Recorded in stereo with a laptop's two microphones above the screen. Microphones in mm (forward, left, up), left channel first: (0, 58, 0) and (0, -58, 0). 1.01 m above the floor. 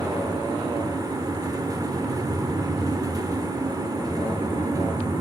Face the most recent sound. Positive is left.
turn(degrees=-30)  # may be behind; listen again after turning